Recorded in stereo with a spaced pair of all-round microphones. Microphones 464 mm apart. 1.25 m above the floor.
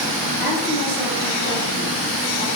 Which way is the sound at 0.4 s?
20° right (ahead or behind).